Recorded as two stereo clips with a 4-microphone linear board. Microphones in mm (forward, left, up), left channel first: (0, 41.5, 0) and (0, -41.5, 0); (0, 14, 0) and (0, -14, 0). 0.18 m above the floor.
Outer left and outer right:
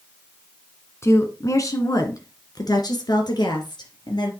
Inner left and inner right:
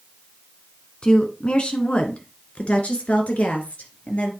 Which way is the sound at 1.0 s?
35° left (ahead or behind).